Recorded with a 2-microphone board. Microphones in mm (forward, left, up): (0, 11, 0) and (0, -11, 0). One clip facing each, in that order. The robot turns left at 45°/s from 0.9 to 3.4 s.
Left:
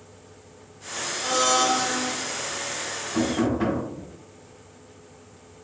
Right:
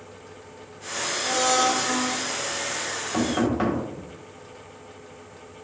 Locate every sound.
1.2 s a blender: 55° left, 0.7 m; by 2.1 s 15° left, 0.7 m
3.1 s knocking: 65° right (ahead or behind), 1.6 m; by 3.8 s 60° right (ahead or behind), 1.6 m